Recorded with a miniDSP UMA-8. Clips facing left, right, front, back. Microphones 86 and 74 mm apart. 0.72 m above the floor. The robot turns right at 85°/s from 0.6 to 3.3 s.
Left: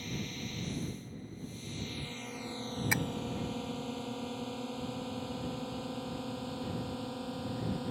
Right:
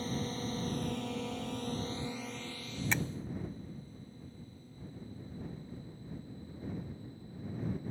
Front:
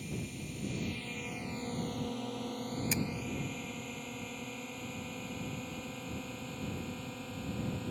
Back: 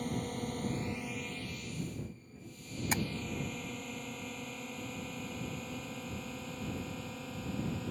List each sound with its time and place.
0.0 s a drone: 145° right; by 7.9 s 90° left
2.9 s tapping: 165° left; by 3.0 s 175° left